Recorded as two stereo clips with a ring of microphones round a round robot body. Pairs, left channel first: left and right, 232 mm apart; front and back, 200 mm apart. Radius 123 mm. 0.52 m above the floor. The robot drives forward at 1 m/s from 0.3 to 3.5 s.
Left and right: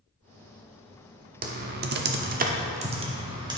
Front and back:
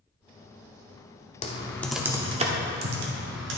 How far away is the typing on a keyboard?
About 1.0 m.